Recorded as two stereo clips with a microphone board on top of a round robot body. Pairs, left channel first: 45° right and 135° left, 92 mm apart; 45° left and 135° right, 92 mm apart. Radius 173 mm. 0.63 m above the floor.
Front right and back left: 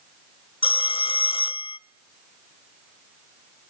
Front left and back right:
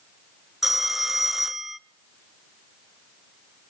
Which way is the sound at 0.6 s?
45° right.